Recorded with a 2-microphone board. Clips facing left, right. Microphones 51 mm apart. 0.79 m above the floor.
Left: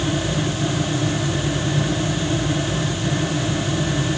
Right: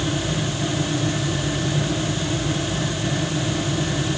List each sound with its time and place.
Only background noise.